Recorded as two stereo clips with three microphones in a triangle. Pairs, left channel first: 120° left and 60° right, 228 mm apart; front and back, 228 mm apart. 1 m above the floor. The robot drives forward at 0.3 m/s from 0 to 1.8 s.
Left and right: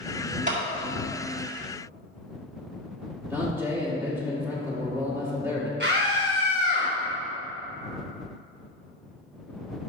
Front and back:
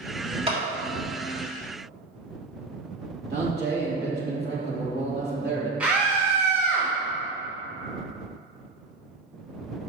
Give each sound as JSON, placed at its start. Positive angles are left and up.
{"t": 0.5, "sound": "a clap", "azimuth_deg": -115, "distance_m": 1.6}
{"t": 3.3, "sound": "a man speaking", "azimuth_deg": -140, "distance_m": 2.0}
{"t": 5.8, "sound": "a scream", "azimuth_deg": -95, "distance_m": 1.1}